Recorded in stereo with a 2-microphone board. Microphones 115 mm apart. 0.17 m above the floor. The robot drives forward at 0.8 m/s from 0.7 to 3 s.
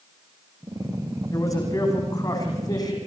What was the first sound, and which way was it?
A man speaking, 30° left (ahead or behind).